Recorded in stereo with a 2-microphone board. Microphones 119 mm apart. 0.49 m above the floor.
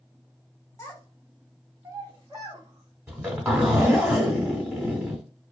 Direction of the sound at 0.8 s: 30° left (ahead or behind).